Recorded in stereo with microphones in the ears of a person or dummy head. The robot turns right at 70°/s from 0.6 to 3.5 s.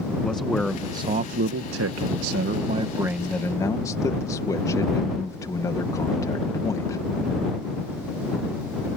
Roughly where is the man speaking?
Behind.